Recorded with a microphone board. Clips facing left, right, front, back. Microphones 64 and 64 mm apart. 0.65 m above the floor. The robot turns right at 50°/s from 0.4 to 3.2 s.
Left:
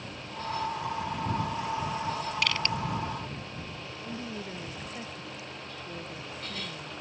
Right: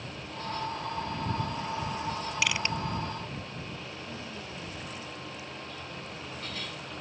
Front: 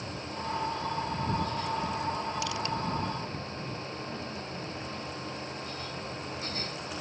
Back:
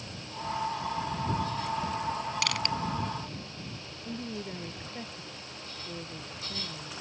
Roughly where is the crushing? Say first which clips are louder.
Even, back 1 dB; behind.